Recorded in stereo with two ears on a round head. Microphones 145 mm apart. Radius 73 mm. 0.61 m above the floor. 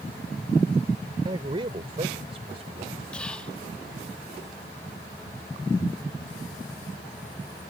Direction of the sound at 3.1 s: 5° left (ahead or behind).